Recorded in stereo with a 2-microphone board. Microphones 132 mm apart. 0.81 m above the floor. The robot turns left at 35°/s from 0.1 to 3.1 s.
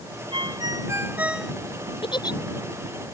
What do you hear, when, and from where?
0.3 s a ringtone: 135° right; by 1.5 s straight behind
2.0 s a giggle: 40° left (ahead or behind); by 2.4 s 30° left (ahead or behind)